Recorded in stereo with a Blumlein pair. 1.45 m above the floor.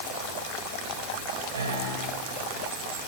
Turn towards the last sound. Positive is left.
turn(degrees=-70)